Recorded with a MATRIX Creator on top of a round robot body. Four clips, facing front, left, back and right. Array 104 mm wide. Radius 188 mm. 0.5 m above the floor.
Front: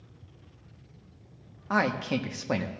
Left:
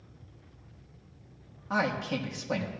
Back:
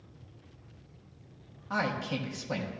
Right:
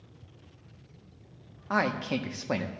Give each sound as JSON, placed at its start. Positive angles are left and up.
{"t": 1.7, "sound": "a man speaking", "azimuth_deg": -40, "distance_m": 1.2}